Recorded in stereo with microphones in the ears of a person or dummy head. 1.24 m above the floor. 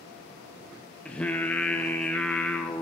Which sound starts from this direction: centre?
Singing, at 1.1 s.